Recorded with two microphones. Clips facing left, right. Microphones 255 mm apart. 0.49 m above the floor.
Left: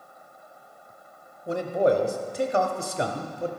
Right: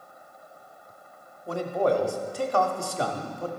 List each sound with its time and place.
1.5 s a man speaking: 20° left (ahead or behind), 0.8 m